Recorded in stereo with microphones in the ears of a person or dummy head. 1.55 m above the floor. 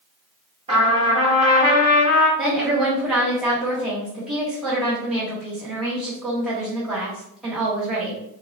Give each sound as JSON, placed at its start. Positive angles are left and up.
{"t": 0.7, "sound": "a trumpet", "side_deg": -25, "distance_m": 1.6}
{"t": 2.4, "sound": "a woman speaking", "side_deg": 5, "distance_m": 1.5}